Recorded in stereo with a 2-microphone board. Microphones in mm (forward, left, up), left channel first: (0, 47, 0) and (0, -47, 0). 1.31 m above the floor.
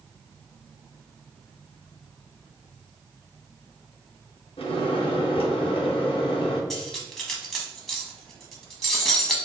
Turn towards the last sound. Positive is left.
turn(degrees=0)  # may be behind; listen again after turning